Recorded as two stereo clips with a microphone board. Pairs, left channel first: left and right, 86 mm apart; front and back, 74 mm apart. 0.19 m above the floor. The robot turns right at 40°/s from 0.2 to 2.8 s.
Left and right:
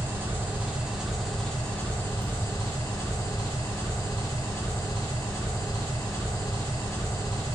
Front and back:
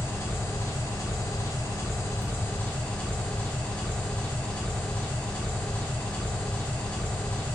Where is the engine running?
45° right, 1.4 m; by 7.5 s 60° left, 1.4 m.